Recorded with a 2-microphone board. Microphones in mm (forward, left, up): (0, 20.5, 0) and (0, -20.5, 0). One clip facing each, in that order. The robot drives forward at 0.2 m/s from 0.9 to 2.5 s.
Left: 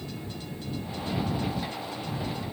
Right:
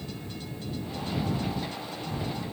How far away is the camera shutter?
No camera shutter in this recording.